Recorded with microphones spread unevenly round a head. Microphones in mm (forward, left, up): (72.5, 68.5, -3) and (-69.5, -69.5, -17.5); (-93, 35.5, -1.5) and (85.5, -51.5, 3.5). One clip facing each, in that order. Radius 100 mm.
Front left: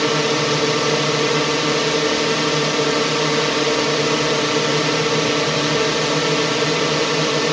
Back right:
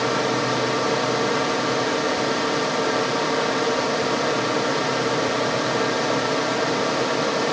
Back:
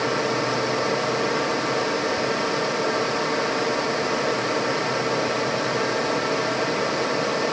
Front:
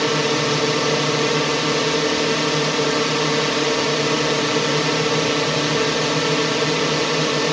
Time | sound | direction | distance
0.0 | a drone | 5° left | ?